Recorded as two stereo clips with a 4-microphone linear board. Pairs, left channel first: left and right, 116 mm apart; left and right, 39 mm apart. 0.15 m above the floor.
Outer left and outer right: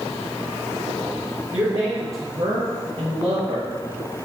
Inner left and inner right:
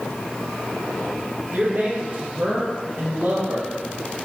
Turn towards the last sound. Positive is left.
turn(degrees=-35)  # may be behind; listen again after turning